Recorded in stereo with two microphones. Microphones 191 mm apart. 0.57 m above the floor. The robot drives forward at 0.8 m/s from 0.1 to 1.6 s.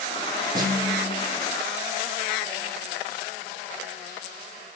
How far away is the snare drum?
About 8.5 m.